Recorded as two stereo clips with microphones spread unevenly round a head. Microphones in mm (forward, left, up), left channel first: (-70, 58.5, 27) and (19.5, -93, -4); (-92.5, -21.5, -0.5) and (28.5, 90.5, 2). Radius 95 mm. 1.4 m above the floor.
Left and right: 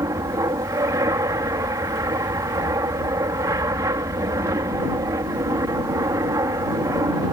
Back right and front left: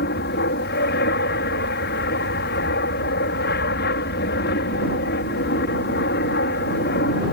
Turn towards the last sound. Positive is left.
turn(degrees=-130)